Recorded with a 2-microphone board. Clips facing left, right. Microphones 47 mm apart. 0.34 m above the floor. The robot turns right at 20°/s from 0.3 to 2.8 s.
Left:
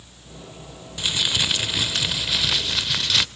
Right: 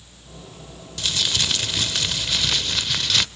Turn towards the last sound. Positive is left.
turn(degrees=5)  # may be behind; listen again after turning